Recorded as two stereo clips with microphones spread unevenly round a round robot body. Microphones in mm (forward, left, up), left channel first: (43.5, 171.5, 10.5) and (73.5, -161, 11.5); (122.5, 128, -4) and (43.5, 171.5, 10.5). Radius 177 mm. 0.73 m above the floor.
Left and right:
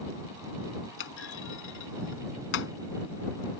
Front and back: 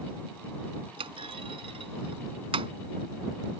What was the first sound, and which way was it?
A clunk, 155° left.